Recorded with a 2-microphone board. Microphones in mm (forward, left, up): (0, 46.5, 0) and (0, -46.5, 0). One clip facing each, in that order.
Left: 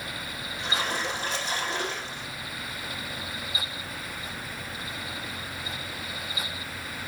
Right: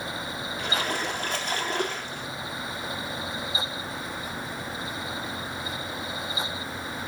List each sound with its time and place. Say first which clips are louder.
0.6 s a splash: even; 55° right (ahead or behind), 1.5 m